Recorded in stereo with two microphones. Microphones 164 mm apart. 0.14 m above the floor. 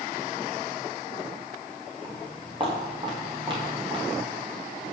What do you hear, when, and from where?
2.0 s footsteps: 35° right (ahead or behind), 6 m; by 4.2 s 30° right (ahead or behind), 7.5 m